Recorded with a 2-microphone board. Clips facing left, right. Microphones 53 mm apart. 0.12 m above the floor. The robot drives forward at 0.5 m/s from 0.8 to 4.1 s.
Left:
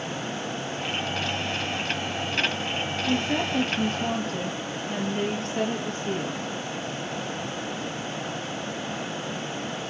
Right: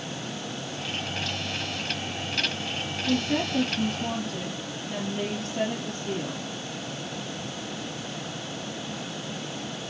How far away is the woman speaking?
About 2.5 m.